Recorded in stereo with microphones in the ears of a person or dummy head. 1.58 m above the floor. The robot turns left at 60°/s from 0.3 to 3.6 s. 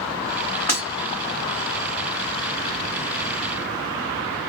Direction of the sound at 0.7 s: 10° left (ahead or behind).